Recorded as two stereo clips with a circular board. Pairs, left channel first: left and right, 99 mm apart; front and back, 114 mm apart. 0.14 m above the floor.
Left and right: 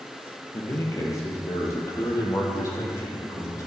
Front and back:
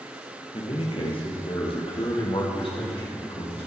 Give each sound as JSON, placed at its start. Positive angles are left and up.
{"t": 0.5, "sound": "a man speaking", "azimuth_deg": 30, "distance_m": 3.5}